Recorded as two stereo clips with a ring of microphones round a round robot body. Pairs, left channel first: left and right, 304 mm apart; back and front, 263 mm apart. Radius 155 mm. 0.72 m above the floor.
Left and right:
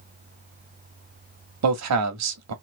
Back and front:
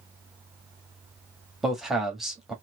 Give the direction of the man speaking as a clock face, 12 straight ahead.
3 o'clock.